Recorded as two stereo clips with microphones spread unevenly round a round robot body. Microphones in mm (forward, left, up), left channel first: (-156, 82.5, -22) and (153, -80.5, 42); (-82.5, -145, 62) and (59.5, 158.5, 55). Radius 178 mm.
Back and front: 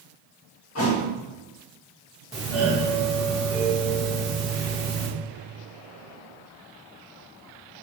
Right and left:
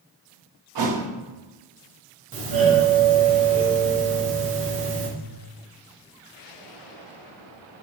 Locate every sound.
0.8 s a thud: 95° left, 0.7 m
2.3 s a doorbell: 75° left, 1.2 m